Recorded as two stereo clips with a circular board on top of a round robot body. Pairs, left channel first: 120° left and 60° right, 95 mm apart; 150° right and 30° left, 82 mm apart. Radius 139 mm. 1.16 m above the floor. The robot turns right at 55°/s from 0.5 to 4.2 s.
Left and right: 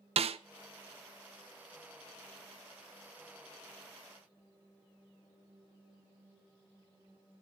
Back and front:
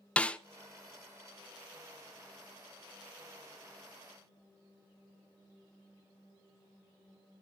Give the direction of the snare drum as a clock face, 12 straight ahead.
2 o'clock.